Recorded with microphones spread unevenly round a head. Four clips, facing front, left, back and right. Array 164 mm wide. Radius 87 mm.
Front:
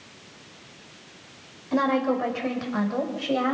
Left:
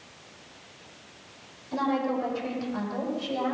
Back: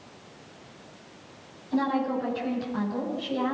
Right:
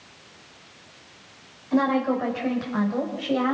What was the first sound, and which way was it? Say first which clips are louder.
A woman speaking: right 5 dB, front 3 dB; 25° right.